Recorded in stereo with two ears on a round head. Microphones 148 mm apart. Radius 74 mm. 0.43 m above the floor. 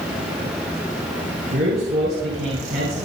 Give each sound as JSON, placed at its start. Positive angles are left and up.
{"t": 1.5, "sound": "a man speaking", "side_deg": -70, "distance_m": 5.0}